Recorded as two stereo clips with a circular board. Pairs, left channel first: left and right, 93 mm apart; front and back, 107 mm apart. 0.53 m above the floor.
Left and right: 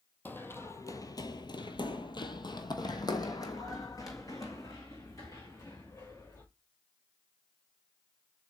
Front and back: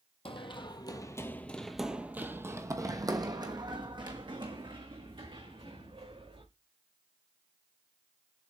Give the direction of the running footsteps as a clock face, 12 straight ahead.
11 o'clock.